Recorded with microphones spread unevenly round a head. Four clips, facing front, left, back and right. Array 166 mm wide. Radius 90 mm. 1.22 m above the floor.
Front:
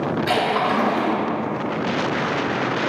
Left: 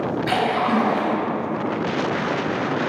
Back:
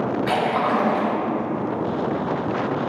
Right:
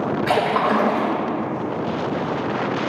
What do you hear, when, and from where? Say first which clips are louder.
0.3 s a splash: right 2 dB, front 1 dB; 70° right, 2 m